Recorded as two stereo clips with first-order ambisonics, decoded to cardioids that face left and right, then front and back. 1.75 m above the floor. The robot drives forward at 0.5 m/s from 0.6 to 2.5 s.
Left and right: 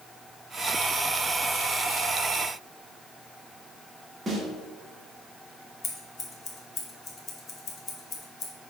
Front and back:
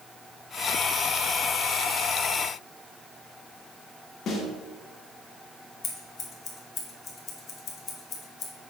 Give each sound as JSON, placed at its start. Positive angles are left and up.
{"t": 4.3, "sound": "a snare drum", "azimuth_deg": -30, "distance_m": 1.3}
{"t": 5.8, "sound": "scissors", "azimuth_deg": 40, "distance_m": 1.2}